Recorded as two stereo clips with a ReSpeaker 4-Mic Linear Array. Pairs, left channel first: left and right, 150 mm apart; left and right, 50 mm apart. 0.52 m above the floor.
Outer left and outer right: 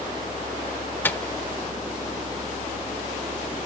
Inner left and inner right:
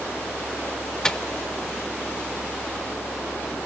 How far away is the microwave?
About 1.0 m.